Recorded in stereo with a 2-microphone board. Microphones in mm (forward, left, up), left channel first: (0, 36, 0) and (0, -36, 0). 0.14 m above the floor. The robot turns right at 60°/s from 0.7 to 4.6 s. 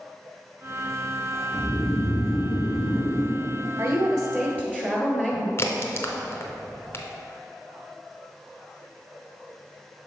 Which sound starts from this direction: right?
A woman speaking, at 3.8 s.